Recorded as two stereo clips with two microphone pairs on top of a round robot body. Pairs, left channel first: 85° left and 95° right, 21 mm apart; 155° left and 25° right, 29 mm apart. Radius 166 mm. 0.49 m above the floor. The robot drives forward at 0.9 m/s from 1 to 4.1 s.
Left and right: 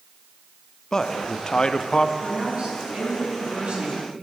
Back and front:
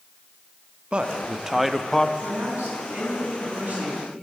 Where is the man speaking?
25° left, 1.2 m; by 2.1 s 125° left, 1.0 m.